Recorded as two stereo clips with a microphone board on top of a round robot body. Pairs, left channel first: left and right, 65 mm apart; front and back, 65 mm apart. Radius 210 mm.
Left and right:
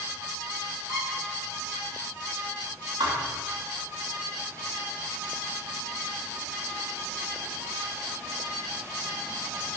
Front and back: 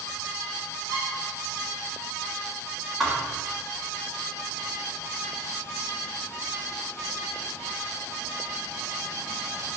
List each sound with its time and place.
0.9 s a squeak: 140° left, 3.5 m
3.0 s a thud: 90° right, 0.8 m